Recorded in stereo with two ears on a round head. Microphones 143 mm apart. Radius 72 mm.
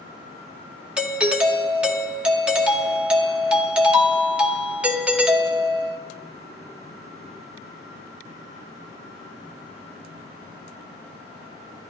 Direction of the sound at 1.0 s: 5° right (ahead or behind).